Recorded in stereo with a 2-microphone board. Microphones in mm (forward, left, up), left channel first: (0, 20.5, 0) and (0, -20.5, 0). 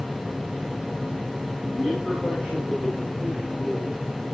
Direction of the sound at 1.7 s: 5° left (ahead or behind).